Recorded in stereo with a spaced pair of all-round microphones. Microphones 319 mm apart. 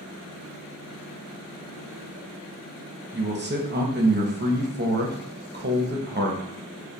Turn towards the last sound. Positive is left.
turn(degrees=-30)  # may be behind; listen again after turning